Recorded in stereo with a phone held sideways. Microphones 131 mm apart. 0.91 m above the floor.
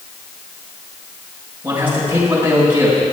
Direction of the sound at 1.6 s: 15° right (ahead or behind).